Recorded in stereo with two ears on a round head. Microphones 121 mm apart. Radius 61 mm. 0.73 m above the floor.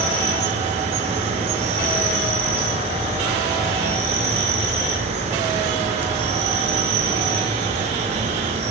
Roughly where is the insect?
Right.